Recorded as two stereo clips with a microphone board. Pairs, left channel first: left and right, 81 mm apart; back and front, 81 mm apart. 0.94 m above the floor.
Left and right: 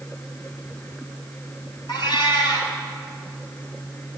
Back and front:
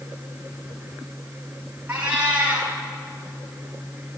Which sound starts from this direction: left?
A cat meowing, at 1.9 s.